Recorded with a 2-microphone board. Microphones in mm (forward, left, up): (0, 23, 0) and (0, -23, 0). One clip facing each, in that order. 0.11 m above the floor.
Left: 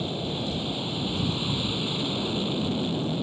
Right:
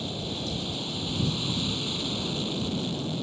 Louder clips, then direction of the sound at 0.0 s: Left 3 dB; 20° left (ahead or behind).